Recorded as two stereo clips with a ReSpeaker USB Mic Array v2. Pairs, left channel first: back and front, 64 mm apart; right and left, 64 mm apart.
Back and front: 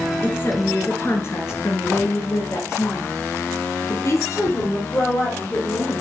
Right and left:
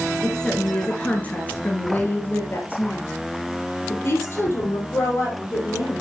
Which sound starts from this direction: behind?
A woman speaking, at 0.2 s.